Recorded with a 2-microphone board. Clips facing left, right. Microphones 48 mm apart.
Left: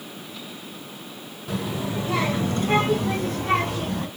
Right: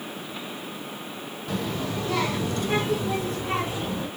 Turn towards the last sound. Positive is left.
turn(degrees=65)  # may be behind; listen again after turning